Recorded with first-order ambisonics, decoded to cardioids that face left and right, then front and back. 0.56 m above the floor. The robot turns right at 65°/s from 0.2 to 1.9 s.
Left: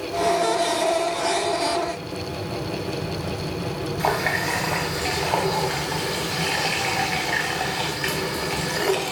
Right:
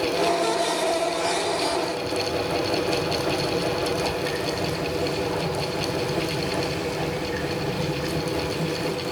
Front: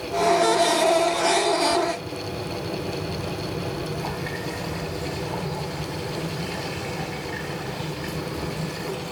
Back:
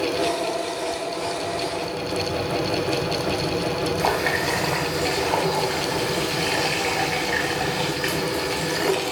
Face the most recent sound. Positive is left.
turn(degrees=135)